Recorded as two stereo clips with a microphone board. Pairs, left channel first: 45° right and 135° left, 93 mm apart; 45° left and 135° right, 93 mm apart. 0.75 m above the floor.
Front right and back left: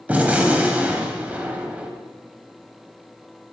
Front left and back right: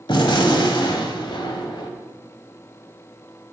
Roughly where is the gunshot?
Ahead left.